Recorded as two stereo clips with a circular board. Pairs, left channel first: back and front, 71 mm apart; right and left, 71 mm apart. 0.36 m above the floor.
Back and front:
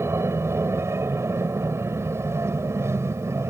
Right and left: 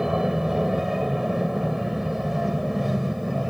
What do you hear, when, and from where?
0.0 s an aircraft: 10° left; by 3.5 s straight ahead